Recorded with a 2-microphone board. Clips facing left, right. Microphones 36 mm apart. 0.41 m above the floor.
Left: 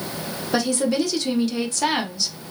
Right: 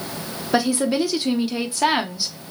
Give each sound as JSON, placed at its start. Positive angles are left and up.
{"t": 0.5, "sound": "a woman speaking", "side_deg": -15, "distance_m": 0.8}